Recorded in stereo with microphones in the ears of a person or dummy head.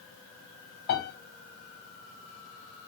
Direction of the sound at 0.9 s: 45° left (ahead or behind).